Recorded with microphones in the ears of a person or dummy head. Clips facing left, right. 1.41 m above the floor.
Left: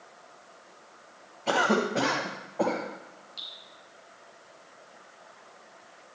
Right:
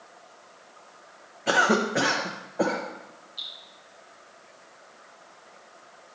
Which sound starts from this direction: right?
A cough, at 1.5 s.